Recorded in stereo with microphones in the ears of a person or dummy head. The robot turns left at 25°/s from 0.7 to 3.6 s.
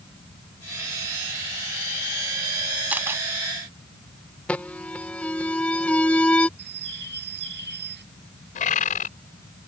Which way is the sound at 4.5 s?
5° left (ahead or behind).